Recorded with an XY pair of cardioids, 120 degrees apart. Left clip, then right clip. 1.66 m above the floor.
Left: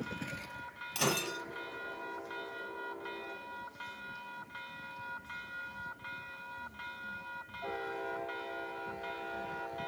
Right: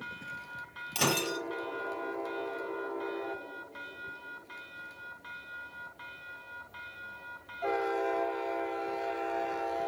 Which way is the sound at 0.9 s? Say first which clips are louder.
Right 4 dB; 30° right.